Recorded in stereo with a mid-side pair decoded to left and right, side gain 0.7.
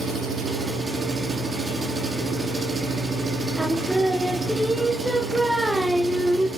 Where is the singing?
5° right, 0.7 m.